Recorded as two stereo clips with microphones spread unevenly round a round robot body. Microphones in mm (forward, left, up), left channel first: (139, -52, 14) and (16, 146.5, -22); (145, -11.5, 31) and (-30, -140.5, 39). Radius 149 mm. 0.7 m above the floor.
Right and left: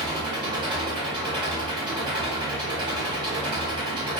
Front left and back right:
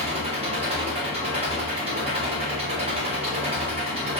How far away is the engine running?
About 0.9 m.